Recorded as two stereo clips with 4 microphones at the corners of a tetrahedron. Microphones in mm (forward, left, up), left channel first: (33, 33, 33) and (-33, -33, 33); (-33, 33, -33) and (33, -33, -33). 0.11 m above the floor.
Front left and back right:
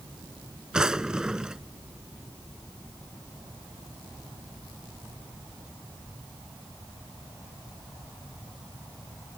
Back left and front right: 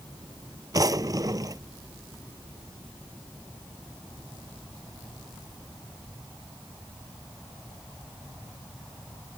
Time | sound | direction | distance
0.7 | a drawer | 55° right | ?